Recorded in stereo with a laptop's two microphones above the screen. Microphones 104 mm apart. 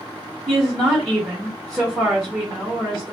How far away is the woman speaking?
About 1.1 m.